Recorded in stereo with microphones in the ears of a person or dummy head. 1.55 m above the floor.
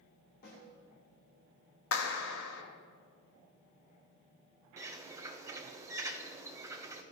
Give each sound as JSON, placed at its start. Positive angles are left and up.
{"t": 0.4, "sound": "a snare drum", "side_deg": 55, "distance_m": 2.0}
{"t": 1.9, "sound": "a clap", "side_deg": 70, "distance_m": 0.8}
{"t": 4.8, "sound": "a bird", "side_deg": -10, "distance_m": 0.5}